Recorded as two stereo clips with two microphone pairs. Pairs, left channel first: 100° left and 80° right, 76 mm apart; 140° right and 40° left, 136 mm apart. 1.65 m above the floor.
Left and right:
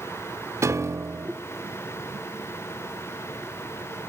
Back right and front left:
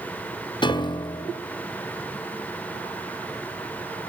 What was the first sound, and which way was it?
A piano, 105° right.